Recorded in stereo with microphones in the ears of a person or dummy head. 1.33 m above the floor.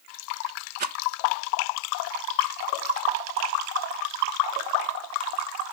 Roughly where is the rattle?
Right.